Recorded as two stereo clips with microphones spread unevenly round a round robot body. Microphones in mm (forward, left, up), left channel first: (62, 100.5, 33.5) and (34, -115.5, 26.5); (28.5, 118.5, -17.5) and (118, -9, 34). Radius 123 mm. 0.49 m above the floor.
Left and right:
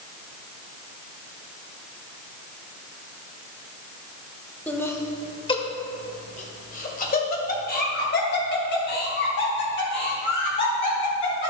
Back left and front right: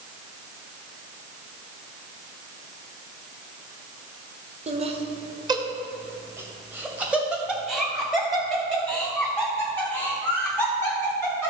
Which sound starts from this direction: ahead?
Laughter, at 4.7 s.